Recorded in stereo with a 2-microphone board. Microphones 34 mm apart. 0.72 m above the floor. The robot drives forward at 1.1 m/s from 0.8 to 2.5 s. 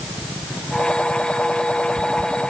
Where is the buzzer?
I don't hear a buzzer.